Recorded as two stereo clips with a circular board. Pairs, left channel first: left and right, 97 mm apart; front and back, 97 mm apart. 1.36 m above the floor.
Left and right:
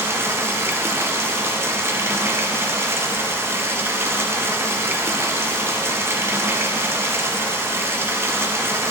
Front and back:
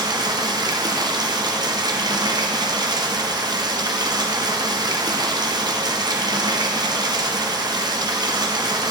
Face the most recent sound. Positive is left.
turn(degrees=-150)